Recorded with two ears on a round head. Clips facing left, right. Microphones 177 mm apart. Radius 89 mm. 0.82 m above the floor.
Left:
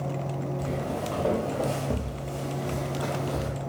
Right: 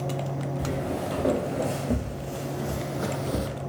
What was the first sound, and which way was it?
Footsteps, 15° right (ahead or behind).